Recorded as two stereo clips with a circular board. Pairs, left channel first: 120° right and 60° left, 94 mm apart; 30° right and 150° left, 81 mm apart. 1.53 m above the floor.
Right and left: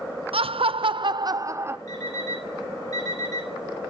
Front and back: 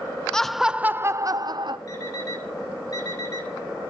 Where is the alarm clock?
70° right, 7.5 m.